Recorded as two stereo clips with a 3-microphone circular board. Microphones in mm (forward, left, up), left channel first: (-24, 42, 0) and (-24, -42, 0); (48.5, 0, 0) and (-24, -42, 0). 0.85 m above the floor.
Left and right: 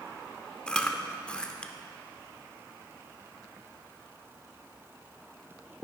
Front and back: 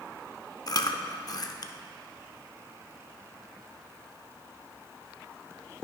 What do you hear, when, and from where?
0.7 s chewing: 15° left, 0.6 m